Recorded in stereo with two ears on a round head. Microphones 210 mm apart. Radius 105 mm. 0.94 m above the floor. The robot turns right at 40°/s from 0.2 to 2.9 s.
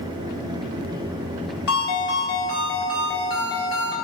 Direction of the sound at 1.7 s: 110° left.